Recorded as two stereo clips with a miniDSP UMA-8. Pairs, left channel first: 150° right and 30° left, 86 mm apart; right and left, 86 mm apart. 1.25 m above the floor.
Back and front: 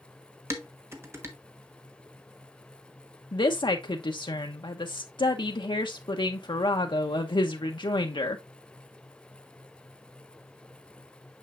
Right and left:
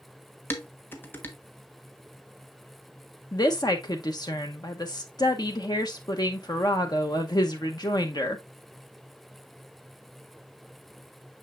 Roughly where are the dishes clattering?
Ahead right.